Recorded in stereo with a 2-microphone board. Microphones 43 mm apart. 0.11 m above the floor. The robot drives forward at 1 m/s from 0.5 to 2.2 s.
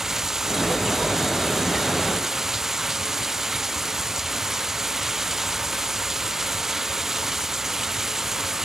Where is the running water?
10° right (ahead or behind).